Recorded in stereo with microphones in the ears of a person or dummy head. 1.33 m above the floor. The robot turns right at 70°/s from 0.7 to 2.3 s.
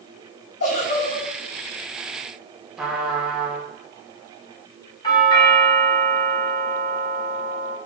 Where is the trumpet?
5° right (ahead or behind), 0.6 m.